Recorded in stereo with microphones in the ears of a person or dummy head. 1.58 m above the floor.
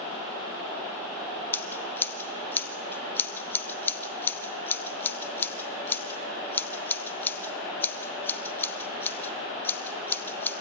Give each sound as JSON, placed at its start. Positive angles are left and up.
{"t": 1.5, "sound": "scissors", "side_deg": 20, "distance_m": 0.9}